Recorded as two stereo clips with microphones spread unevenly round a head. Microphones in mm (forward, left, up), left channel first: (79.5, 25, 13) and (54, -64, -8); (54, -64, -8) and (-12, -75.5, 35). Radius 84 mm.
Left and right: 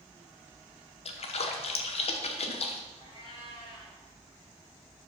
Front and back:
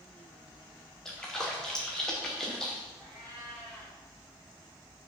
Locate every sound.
1.1 s a splash: 65° left, 0.9 m
3.0 s a cat meowing: 115° left, 4 m